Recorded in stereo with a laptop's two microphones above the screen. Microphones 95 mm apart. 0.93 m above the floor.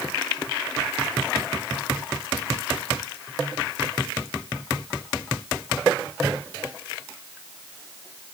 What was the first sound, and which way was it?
Only background noise.